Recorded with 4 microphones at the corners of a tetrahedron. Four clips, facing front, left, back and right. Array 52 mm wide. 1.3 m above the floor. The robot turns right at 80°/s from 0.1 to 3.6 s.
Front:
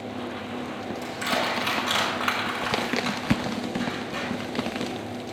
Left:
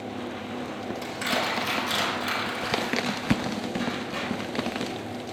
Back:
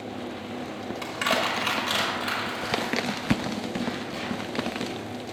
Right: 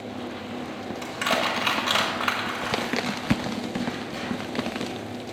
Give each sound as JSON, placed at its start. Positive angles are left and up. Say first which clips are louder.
{"t": 1.0, "sound": "crushing", "louder": "right 3 dB, back 2 dB", "azimuth_deg": -160, "distance_m": 3.5}